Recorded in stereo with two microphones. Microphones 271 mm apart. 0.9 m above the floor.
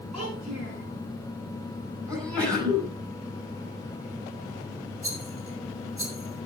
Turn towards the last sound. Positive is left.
turn(degrees=-50)  # may be behind; listen again after turning